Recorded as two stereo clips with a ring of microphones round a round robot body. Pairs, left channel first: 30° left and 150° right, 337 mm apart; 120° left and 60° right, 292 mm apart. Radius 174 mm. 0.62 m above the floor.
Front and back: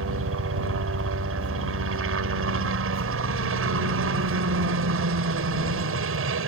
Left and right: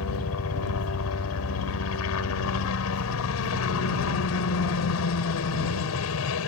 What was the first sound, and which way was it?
A helicopter, 160° left.